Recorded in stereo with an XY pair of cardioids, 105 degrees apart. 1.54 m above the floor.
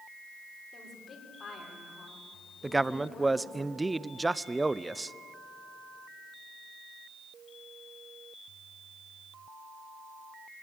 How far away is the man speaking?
About 0.5 m.